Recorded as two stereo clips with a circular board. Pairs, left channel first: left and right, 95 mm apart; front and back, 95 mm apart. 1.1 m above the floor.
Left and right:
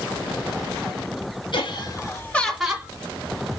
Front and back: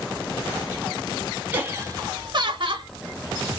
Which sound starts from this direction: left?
Laughter, at 1.5 s.